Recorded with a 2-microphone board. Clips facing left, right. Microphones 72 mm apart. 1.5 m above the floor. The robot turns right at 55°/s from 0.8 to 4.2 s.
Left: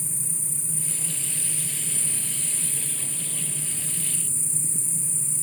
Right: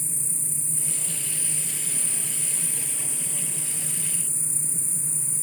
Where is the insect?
130° left, 2.5 m; by 5.5 s 45° right, 2.5 m.